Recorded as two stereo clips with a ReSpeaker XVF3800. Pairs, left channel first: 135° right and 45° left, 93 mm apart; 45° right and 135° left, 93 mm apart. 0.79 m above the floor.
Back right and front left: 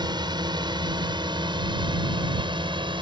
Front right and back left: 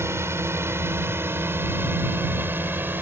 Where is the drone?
75° left; by 3.0 s 70° left.